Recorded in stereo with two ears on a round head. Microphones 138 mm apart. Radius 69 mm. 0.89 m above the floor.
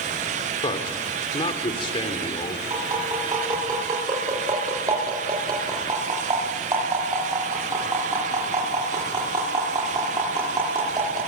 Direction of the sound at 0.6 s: 35° left (ahead or behind).